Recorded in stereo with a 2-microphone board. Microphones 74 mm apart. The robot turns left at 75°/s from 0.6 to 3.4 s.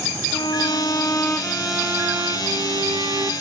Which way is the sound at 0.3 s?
75° left.